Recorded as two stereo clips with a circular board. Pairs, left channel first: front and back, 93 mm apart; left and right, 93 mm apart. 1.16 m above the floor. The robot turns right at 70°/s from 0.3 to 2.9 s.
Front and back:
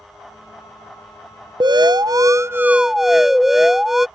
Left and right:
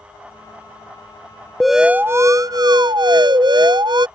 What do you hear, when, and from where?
1.6 s an alarm: 175° left; by 4.1 s 95° right